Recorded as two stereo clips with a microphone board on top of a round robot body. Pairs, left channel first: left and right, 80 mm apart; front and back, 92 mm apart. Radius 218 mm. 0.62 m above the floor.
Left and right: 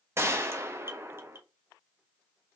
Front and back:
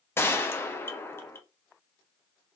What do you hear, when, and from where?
0.2 s a gunshot: 50° right, 1.0 m